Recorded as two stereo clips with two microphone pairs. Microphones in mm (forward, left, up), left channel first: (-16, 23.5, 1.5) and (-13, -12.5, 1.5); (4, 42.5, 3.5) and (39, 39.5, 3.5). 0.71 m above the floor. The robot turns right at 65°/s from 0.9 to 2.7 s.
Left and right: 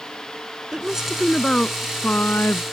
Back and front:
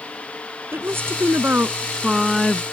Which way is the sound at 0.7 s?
15° right.